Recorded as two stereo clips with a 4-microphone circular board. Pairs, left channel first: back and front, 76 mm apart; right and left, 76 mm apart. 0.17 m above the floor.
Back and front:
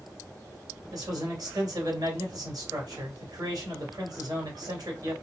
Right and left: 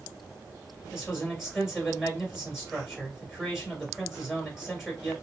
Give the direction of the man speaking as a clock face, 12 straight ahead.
12 o'clock.